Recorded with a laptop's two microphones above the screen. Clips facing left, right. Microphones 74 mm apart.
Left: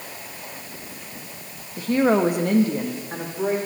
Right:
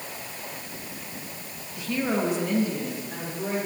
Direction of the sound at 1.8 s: 45° left (ahead or behind).